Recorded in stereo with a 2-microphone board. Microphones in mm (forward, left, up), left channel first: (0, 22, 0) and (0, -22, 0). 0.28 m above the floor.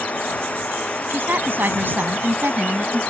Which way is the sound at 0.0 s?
30° left (ahead or behind).